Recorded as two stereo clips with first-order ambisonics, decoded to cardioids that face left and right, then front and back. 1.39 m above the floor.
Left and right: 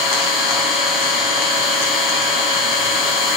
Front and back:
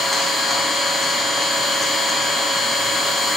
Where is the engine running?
90° left, 4.5 m.